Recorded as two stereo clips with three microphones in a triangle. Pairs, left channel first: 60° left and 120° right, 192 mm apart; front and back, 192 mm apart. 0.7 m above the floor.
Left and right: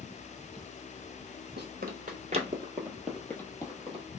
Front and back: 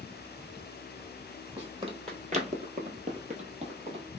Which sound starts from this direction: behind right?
Running footsteps, at 1.6 s.